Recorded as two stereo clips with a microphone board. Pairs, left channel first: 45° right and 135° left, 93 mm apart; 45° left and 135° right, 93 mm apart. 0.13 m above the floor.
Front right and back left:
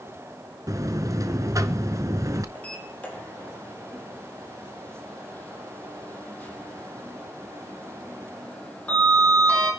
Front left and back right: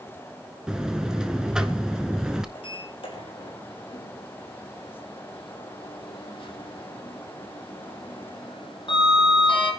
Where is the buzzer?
150° left, 1.1 m.